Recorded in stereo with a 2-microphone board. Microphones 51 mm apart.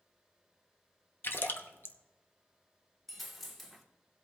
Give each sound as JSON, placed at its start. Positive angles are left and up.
{"t": 1.2, "sound": "a splash", "side_deg": 45, "distance_m": 0.9}
{"t": 3.1, "sound": "a dropped coin", "side_deg": 0, "distance_m": 1.2}